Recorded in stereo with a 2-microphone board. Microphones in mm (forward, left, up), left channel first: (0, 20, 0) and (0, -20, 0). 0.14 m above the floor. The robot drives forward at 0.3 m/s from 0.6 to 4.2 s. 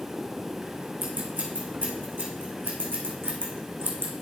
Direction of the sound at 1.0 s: 60° right (ahead or behind).